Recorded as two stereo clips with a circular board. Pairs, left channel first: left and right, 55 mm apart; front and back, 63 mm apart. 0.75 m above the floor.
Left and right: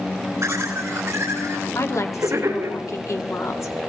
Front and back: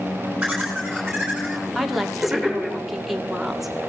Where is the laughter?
90° right, 3.5 m.